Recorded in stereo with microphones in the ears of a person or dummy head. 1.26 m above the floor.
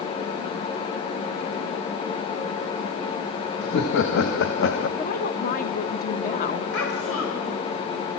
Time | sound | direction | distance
3.6 | laughter | 65° left (ahead or behind) | 1.6 m
5.0 | a woman speaking | 45° left (ahead or behind) | 1.6 m
6.7 | a child speaking | 85° left | 4 m